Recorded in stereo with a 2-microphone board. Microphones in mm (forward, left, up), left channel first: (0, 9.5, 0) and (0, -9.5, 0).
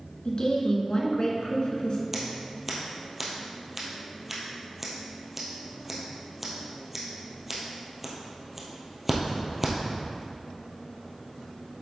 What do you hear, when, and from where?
0.2 s a woman speaking: 45° left (ahead or behind), 1.7 m
2.1 s scissors: 15° right (ahead or behind), 1.8 m